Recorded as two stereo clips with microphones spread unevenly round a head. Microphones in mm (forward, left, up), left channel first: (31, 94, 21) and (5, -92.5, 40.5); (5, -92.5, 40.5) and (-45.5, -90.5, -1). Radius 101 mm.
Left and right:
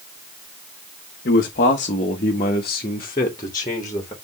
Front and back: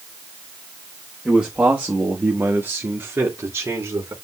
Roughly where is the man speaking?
Behind left.